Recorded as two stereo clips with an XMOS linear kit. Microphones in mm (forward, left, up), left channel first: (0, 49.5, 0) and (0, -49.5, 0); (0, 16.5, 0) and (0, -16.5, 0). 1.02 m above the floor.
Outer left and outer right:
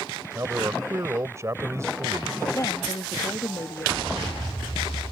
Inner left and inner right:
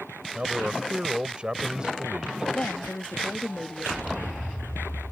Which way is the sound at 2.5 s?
40° left (ahead or behind).